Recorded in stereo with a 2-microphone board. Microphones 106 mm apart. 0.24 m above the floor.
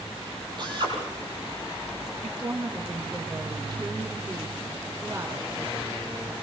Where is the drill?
45° right (ahead or behind), 8.5 m.